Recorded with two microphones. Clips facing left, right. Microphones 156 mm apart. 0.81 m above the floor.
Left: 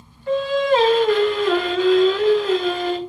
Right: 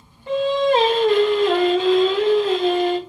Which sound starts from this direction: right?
Singing, at 0.3 s.